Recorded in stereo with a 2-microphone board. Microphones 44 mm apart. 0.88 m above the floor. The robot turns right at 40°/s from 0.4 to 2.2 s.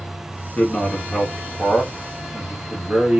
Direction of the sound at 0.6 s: 145° left.